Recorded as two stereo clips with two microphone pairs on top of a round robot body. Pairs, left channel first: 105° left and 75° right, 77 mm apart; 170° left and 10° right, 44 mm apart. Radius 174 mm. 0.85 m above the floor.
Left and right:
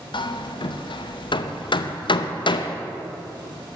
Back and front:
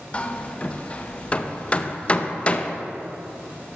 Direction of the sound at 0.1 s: 110° left.